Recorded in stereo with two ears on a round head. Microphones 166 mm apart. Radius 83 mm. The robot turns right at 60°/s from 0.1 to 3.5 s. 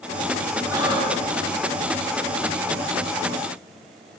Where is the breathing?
165° right, 0.7 m; by 1.3 s 130° right, 0.7 m.